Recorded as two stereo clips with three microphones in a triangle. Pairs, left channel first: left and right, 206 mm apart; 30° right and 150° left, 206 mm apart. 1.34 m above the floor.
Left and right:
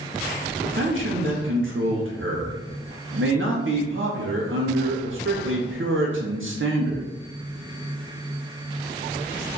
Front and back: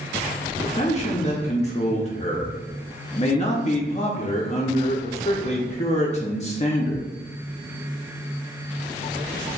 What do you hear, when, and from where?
0.6 s a man speaking: 90° right, 0.5 m